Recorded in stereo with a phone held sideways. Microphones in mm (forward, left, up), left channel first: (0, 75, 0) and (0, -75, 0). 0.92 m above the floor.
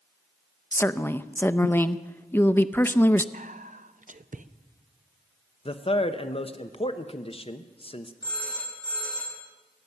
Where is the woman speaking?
15° left (ahead or behind), 0.5 m.